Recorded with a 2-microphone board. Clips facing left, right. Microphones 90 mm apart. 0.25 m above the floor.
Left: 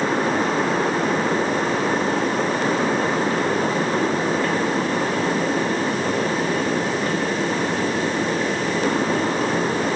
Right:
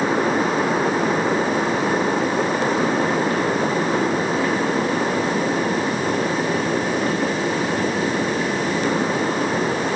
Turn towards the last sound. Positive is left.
No sound to turn to.